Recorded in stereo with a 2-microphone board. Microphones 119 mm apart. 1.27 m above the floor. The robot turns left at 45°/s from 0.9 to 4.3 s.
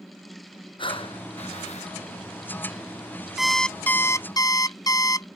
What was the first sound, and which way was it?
Breathing, 130° left.